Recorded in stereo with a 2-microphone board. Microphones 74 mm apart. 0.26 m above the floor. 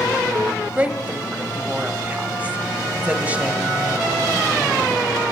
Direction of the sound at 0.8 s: 20° right (ahead or behind).